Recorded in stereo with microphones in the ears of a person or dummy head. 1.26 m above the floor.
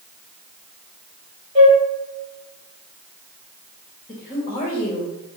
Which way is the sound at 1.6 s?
30° right (ahead or behind).